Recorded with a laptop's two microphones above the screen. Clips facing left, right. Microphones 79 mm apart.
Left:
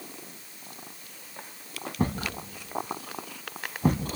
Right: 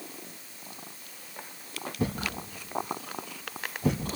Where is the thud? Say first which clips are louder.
Left 2 dB; 45° left (ahead or behind), 1.4 m.